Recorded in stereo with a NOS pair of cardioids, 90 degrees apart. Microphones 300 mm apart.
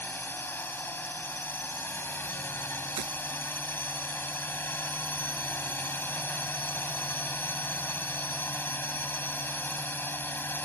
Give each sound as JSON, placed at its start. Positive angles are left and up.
{"t": 0.0, "sound": "a drone", "azimuth_deg": 5}
{"t": 3.0, "sound": "breaking glass", "azimuth_deg": -70}